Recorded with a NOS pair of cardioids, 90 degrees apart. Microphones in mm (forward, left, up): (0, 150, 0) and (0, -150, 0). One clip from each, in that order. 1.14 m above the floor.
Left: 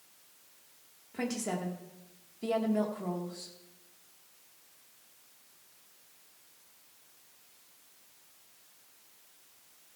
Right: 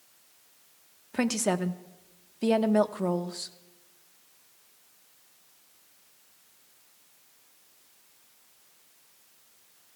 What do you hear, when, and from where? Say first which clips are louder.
1.1 s a woman speaking: right 8 dB; 60° right, 1.2 m